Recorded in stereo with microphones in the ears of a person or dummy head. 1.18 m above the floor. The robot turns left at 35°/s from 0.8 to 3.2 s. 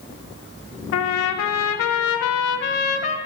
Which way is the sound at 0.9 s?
110° left.